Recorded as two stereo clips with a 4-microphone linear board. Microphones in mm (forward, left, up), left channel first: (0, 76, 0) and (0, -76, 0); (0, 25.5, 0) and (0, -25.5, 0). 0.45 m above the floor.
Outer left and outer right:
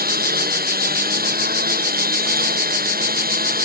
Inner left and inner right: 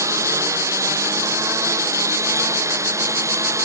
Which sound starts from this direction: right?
A lawn mower, at 0.0 s.